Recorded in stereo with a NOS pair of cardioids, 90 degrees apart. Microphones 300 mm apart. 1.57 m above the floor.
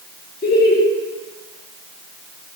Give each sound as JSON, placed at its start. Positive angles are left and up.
{"t": 0.4, "sound": "laughter", "azimuth_deg": 30, "distance_m": 2.0}